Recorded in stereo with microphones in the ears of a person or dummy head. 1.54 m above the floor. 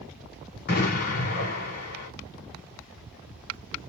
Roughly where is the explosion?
Left.